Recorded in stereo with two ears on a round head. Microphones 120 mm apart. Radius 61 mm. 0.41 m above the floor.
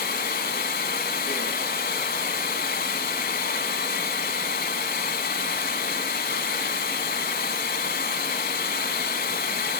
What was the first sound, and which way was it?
Running water, 75° left (ahead or behind).